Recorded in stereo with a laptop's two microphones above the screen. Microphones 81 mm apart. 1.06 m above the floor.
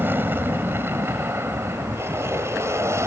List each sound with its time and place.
0.0 s an aircraft: 30° right (ahead or behind); by 3.1 s 40° right (ahead or behind)